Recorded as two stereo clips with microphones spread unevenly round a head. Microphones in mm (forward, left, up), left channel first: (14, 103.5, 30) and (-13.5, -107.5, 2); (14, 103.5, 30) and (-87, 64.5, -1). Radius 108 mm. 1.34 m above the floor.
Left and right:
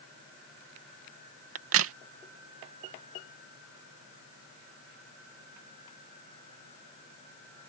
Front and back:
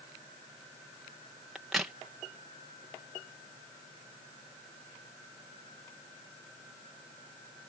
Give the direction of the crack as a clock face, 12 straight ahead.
2 o'clock.